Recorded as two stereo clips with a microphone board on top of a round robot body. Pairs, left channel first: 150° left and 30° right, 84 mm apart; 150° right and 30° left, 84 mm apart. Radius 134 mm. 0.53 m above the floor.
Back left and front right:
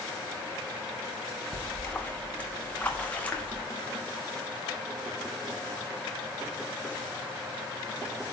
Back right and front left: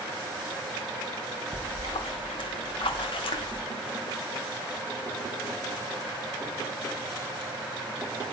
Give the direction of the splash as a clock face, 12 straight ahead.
5 o'clock.